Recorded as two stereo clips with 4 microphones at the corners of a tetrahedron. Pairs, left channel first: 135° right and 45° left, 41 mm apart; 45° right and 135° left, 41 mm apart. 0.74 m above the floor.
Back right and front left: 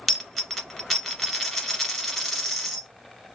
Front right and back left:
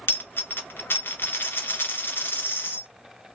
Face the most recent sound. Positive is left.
turn(degrees=-45)